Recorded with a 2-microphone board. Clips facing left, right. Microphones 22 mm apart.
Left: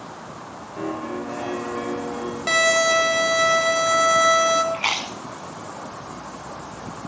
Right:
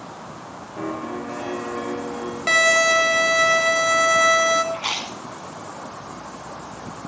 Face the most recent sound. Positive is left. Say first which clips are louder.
# left 2 dB
turn(degrees=60)  # may be behind; listen again after turning